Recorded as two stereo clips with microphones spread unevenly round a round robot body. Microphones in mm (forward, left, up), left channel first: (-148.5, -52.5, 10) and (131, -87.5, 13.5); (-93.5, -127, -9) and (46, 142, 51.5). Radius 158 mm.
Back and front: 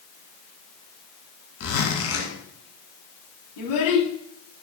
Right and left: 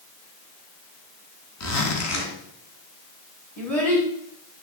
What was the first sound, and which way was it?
A zipper, 150° right.